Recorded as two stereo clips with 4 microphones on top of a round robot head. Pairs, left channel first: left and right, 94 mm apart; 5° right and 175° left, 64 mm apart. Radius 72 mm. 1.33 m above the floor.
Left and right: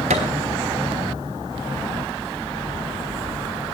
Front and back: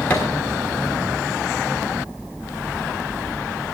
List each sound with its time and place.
0.1 s a thud: 80° right, 1.3 m